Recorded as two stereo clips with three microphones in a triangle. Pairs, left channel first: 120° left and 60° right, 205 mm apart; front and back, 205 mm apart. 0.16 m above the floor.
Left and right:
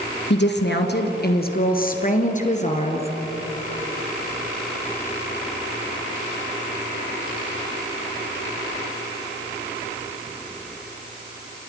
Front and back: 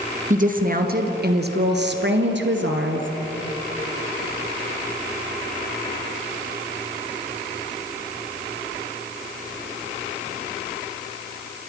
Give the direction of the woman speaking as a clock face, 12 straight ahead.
8 o'clock.